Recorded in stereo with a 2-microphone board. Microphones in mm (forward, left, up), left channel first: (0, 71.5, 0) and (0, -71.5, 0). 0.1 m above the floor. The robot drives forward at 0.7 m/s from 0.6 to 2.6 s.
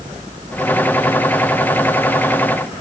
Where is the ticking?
I don't hear ticking.